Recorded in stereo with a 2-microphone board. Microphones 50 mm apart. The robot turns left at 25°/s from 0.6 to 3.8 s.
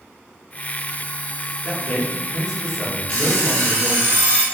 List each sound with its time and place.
1.6 s a man speaking: 10° right (ahead or behind), 1.5 m; by 4.1 s 10° left (ahead or behind), 1.5 m
3.1 s an alarm clock: 25° left (ahead or behind), 1.1 m; by 4.4 s 40° left (ahead or behind), 1.1 m